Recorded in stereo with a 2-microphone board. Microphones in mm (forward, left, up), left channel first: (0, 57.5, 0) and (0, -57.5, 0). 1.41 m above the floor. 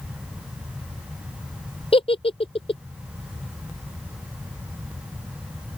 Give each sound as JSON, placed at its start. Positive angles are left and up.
{"t": 1.9, "sound": "a giggle", "side_deg": 55}